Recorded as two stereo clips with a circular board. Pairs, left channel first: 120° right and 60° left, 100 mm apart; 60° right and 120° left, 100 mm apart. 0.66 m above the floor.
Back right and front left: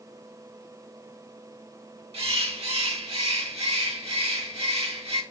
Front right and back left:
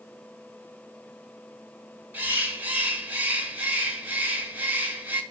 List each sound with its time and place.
2.1 s a bird: 50° left, 0.8 m